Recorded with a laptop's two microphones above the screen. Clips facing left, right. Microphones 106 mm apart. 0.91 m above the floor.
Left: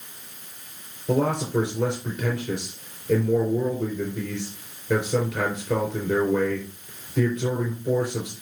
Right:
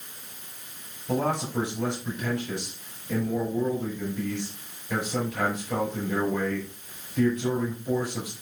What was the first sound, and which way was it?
A man speaking, 60° left (ahead or behind).